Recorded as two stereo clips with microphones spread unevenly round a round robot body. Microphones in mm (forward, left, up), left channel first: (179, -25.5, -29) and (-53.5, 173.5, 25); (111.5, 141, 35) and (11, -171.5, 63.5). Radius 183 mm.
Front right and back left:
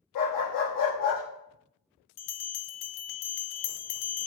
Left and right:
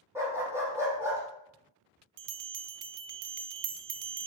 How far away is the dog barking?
About 4.5 m.